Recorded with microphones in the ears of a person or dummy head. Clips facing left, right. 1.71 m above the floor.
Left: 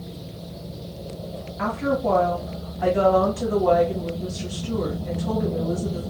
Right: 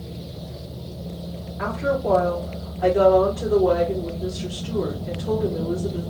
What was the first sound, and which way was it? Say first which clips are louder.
A woman speaking: even; 60° left (ahead or behind).